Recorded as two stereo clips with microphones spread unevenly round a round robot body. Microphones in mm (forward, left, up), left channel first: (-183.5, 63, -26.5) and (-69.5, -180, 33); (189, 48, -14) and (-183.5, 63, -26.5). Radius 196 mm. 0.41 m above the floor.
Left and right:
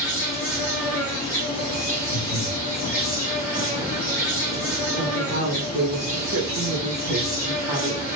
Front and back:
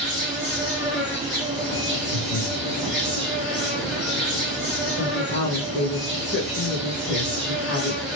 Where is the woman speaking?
55° right, 1.2 m.